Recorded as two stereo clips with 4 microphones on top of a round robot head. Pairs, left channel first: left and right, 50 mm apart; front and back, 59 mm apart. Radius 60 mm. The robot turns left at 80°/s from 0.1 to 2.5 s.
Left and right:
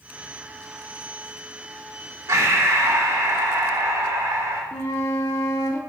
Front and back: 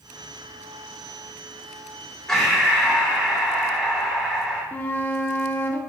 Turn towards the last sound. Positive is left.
turn(degrees=50)